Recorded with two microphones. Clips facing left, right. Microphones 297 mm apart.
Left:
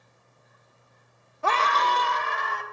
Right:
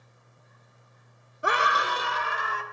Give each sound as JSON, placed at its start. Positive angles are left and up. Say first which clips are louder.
{"t": 1.4, "sound": "a scream", "louder": "left 2 dB", "side_deg": -15, "distance_m": 0.5}